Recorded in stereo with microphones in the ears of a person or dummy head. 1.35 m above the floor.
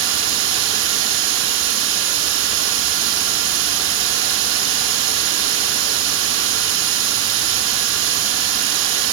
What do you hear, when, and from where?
0.0 s running water: 70° right (ahead or behind), 6 m